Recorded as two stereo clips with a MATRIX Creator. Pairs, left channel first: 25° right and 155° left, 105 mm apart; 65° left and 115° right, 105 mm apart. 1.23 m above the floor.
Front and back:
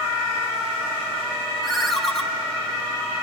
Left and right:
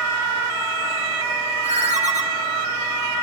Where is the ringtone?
110° right, 2 m.